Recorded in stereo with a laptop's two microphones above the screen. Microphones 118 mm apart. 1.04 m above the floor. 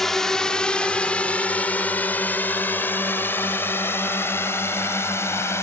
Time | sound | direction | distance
0.0 | a drone | 5° left (ahead or behind) | ?